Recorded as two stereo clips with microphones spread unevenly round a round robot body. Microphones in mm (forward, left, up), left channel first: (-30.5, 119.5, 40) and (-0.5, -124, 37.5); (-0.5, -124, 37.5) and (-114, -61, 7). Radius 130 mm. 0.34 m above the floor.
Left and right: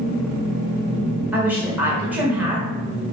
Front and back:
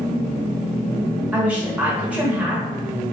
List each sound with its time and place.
1.3 s a woman speaking: 160° right, 1.1 m